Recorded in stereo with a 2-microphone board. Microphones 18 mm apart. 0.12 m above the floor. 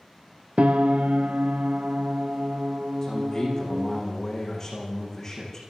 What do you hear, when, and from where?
0.6 s a piano: 75° right (ahead or behind), 0.6 m
3.0 s a man speaking: 20° left (ahead or behind), 8 m